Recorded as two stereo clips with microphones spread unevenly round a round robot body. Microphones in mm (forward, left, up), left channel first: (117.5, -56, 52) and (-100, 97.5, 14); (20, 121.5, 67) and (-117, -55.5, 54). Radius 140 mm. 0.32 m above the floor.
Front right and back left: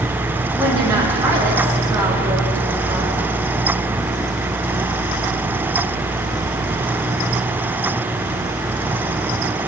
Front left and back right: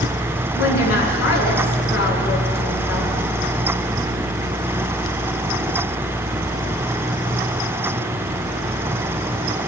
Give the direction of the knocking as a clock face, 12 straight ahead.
No knocking in this recording.